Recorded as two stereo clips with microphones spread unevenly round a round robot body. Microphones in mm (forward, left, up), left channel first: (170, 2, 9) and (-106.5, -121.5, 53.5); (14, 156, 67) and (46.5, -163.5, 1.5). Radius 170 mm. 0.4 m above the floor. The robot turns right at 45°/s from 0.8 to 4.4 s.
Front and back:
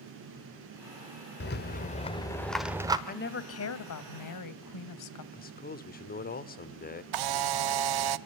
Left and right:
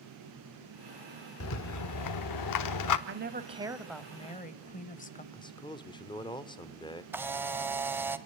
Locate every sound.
1.4 s a rattle: 50° left, 1.3 m; by 3.0 s 125° left, 1.3 m
3.1 s a woman speaking: 35° right, 2.0 m; by 5.2 s 25° left, 2.0 m
5.3 s a man speaking: 10° left, 1.5 m
7.1 s a camera shutter: 165° right, 0.9 m